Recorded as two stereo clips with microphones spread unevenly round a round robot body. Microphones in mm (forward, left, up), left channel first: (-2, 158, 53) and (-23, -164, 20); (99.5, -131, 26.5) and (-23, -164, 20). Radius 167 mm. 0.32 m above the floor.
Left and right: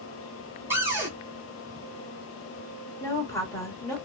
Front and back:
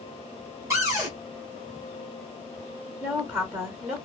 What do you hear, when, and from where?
0.7 s a cupboard door: 155° right, 1.1 m
3.0 s a woman speaking: 165° left, 1.3 m